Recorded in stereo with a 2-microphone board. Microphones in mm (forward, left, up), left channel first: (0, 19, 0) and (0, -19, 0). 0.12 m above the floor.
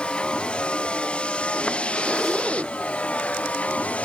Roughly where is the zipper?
Centre.